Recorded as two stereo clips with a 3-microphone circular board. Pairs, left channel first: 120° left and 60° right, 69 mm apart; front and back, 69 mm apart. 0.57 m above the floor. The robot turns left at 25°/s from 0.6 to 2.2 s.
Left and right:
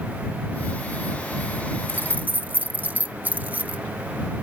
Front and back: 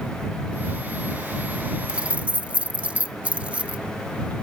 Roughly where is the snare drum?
No snare drum in this recording.